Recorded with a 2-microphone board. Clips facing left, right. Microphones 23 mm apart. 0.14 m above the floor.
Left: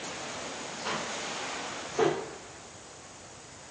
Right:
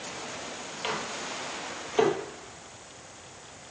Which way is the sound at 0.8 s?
70° right (ahead or behind).